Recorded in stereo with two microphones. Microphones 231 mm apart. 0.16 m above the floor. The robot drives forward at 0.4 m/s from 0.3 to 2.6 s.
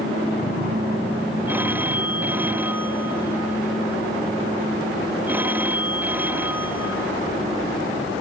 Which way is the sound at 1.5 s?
10° right (ahead or behind).